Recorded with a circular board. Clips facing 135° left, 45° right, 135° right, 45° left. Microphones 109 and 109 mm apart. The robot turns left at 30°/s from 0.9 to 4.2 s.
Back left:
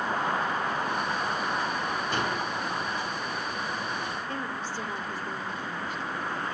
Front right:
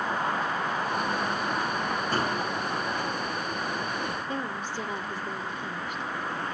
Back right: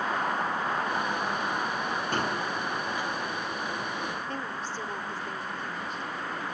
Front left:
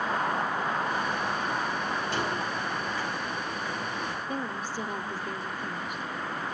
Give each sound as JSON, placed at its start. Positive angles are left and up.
{"t": 2.1, "sound": "a gunshot", "azimuth_deg": -95, "distance_m": 3.0}
{"t": 4.3, "sound": "a woman speaking", "azimuth_deg": -5, "distance_m": 1.0}